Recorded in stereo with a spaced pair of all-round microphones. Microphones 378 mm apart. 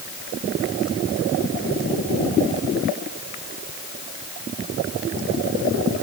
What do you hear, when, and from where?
Only background noise.